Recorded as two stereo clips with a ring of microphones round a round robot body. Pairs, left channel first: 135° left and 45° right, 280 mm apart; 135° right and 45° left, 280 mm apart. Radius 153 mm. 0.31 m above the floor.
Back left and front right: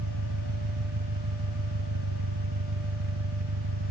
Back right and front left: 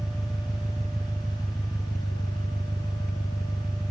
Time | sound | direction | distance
0.0 | an engine running | 45° right | ?